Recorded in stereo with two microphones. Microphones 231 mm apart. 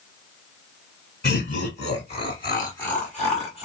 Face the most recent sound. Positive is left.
turn(degrees=-5)  # may be behind; listen again after turning